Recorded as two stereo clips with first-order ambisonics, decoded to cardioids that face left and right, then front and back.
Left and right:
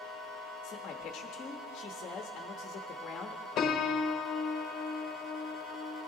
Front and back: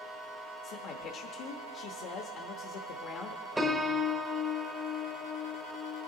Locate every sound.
0.6 s a man speaking: 35° left, 0.8 m
3.6 s a piano: 100° left, 0.9 m